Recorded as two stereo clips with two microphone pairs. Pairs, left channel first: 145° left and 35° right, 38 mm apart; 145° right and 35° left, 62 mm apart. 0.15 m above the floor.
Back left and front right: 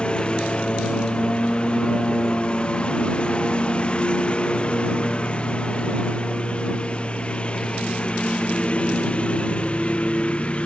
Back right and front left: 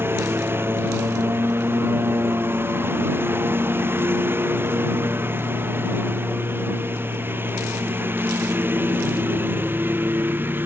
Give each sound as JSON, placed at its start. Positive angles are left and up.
{"t": 0.0, "sound": "a lawn mower", "azimuth_deg": 85}